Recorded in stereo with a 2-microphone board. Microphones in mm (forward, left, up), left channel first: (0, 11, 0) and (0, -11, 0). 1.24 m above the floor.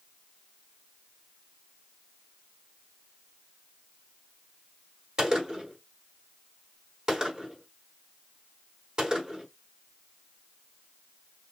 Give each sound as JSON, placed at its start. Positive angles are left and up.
{"t": 5.2, "sound": "a gunshot", "side_deg": -35, "distance_m": 1.2}